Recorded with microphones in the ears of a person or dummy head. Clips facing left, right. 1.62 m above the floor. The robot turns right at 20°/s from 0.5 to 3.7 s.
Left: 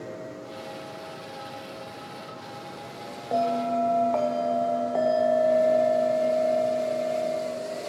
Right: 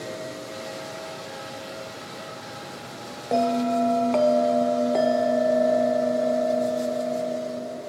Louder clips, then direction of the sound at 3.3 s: Right 3 dB; 25° right (ahead or behind).